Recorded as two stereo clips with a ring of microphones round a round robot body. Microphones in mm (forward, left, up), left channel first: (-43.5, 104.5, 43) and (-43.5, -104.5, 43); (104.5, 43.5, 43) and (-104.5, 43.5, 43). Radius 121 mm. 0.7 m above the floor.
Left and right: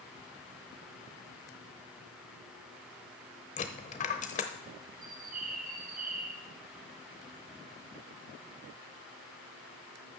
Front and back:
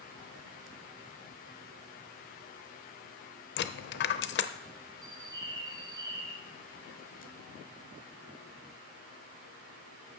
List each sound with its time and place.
3.6 s a dropped coin: 30° left, 0.7 m
5.0 s a bird: 115° right, 1.5 m